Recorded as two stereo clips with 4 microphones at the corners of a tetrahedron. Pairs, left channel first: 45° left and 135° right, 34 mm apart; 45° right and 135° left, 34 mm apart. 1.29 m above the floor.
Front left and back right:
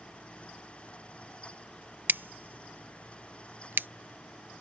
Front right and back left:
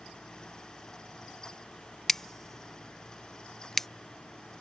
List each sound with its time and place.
2.1 s scissors: 125° right